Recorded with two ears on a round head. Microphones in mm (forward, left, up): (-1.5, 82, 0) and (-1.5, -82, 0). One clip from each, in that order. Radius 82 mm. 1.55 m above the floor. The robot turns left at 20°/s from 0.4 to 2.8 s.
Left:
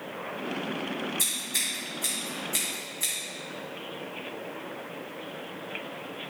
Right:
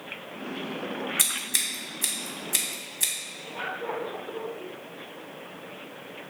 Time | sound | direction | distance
1.2 | scissors | 45° right (ahead or behind) | 2.0 m